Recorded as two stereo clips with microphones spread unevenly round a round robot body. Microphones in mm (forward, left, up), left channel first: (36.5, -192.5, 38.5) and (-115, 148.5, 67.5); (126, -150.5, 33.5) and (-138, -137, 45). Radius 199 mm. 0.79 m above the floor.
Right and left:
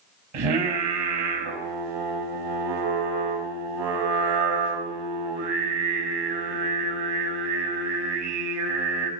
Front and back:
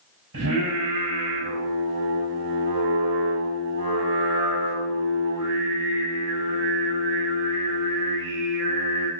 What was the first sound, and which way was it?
Singing, 120° left.